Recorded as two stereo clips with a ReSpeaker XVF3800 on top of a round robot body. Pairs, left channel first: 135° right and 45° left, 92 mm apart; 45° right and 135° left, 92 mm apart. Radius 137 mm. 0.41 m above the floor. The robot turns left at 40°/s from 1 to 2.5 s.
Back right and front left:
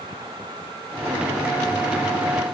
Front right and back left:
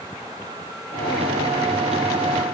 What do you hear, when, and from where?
Only background noise.